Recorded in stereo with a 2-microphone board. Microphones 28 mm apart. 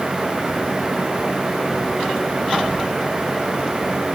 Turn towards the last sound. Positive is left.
No sound to turn to.